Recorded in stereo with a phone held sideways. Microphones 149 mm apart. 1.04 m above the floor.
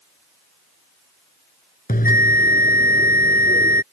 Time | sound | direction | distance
1.9 | a bell | 80° left | ?